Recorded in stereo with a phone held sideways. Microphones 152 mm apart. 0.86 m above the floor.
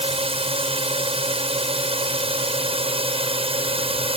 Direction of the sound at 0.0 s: 40° right (ahead or behind).